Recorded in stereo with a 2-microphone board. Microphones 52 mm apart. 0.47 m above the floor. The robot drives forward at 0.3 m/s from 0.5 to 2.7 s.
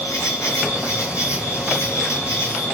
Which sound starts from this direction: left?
An insect, at 0.0 s.